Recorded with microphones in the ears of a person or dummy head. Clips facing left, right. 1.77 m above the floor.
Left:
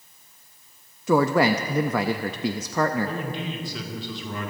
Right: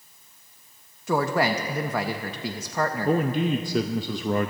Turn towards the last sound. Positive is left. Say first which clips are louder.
# right 8 dB
turn(degrees=-40)  # may be behind; listen again after turning